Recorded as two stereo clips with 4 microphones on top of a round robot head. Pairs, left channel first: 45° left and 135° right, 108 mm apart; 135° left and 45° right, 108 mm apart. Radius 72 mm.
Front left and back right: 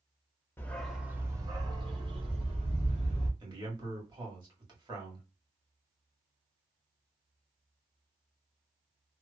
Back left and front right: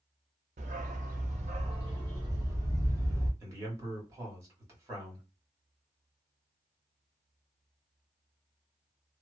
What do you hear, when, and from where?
0.6 s a dog barking: 30° right, 0.5 m; by 3.3 s 110° right, 1.5 m
3.4 s a man speaking: 100° right, 1.7 m